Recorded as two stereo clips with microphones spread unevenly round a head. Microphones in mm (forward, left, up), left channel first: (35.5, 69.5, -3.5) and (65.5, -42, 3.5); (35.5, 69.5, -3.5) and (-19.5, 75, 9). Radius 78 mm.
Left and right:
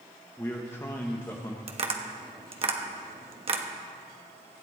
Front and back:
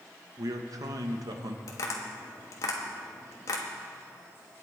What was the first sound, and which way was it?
A man speaking, 175° left.